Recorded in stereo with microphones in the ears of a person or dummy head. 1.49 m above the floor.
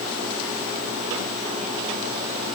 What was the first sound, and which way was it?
Only background noise.